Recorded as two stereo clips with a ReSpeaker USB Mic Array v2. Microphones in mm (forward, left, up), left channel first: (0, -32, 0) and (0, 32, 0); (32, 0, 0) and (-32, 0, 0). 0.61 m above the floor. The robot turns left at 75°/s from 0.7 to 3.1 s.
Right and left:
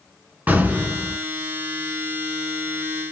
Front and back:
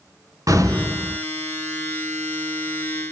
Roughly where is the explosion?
Behind left.